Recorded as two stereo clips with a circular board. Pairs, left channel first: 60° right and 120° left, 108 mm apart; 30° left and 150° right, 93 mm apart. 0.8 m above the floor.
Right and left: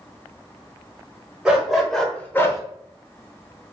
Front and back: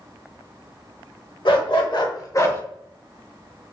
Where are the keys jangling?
No keys jangling in this recording.